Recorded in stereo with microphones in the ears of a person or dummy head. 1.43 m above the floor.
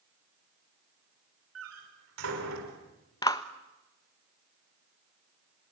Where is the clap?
15° left (ahead or behind), 1.3 m.